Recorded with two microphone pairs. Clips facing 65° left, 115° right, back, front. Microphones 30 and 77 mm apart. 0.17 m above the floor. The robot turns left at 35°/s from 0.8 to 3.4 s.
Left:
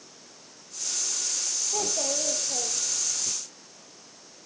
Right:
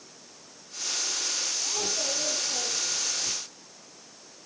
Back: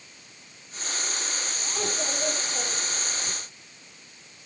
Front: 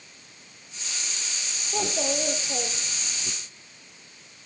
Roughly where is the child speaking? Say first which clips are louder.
Left 3 dB, front 4 dB; ahead left.